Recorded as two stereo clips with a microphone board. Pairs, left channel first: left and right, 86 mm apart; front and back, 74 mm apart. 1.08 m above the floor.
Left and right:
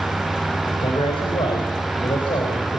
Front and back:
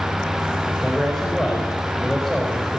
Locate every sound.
0.7 s a man speaking: 85° left, 4 m